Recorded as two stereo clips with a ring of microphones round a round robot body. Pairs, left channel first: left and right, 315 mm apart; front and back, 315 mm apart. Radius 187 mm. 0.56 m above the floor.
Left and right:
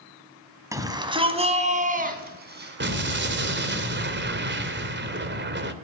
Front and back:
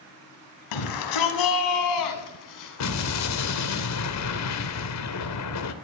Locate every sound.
0.7 s a shout: 10° right, 4.5 m; by 3.1 s 35° right, 6 m
2.8 s an explosion: 35° right, 2.5 m